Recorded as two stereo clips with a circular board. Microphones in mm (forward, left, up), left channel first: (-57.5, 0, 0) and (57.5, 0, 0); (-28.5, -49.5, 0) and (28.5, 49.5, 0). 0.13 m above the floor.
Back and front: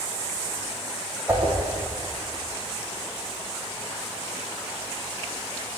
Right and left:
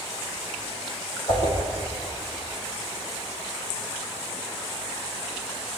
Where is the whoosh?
75° right, 3 m.